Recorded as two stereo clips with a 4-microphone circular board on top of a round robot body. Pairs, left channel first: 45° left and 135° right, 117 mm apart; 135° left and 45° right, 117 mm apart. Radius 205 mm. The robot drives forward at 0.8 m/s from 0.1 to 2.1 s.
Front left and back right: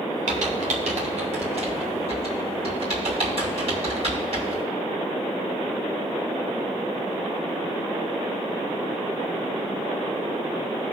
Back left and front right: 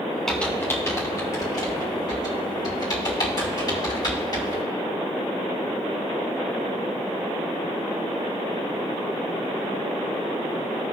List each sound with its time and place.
0.3 s typing on a keyboard: 140° right, 0.6 m; by 4.6 s 170° right, 1.9 m